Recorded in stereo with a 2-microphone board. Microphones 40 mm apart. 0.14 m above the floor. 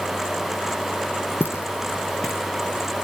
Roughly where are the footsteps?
Left.